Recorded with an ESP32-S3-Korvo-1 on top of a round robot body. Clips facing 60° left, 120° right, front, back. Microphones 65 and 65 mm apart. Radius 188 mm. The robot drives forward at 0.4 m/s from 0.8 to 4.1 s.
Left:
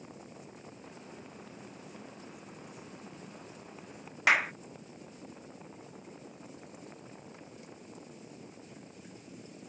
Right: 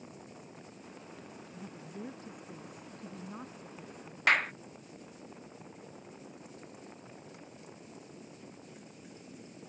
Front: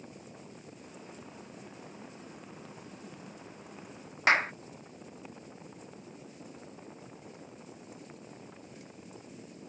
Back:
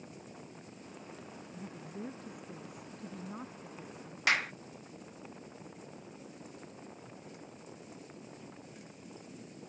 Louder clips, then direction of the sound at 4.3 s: Left 1 dB, front 5 dB; 20° right.